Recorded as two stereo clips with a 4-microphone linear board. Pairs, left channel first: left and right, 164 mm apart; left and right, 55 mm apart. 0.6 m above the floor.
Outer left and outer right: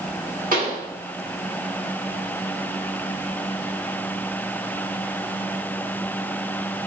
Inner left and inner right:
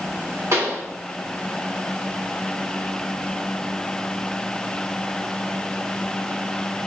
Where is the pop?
60° right (ahead or behind), 1.5 m.